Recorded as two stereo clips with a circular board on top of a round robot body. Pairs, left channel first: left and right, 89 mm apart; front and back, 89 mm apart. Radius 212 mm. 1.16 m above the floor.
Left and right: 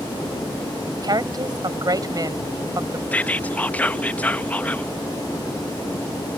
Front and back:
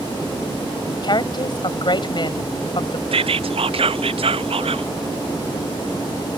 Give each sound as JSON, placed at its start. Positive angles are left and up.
{"t": 1.0, "sound": "a woman speaking", "azimuth_deg": -45}
{"t": 3.1, "sound": "whispering", "azimuth_deg": 165}